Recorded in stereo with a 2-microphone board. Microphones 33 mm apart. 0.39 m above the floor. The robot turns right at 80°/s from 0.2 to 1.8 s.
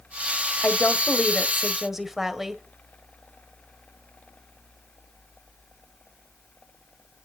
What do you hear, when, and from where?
0.6 s a woman speaking: 100° left, 1.6 m; by 2.6 s 170° right, 1.6 m